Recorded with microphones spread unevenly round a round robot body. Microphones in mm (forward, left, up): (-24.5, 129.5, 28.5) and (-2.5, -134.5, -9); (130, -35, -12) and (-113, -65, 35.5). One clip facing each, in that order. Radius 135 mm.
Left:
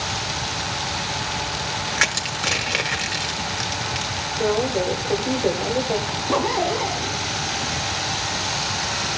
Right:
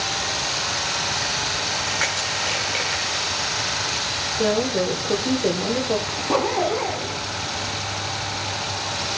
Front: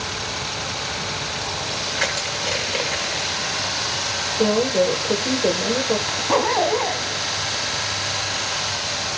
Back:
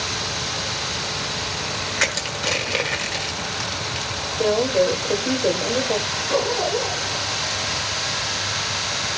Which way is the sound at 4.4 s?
40° right.